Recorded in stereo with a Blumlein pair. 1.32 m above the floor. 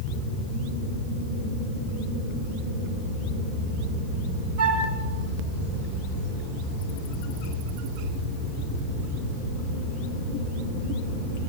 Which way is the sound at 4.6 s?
50° right.